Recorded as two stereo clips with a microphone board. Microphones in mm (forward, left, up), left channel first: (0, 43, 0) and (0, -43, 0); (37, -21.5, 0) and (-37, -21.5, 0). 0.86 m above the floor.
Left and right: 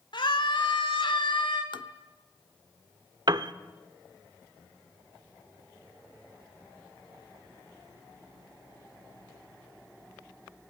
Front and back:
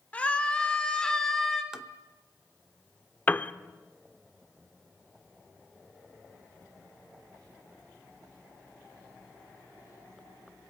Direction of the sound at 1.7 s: 100° left.